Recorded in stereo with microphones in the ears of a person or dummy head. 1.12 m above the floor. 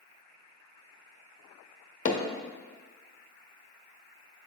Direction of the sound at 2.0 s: 50° left (ahead or behind).